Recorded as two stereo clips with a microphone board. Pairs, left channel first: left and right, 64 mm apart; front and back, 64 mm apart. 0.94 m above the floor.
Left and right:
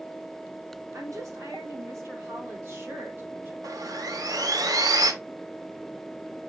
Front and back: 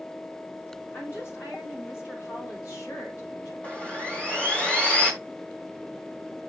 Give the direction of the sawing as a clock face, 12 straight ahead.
2 o'clock.